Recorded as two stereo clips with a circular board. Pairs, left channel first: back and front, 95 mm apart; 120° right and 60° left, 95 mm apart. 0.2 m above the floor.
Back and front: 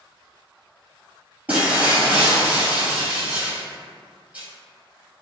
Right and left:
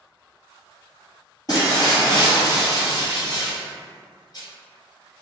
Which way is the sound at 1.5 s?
70° right.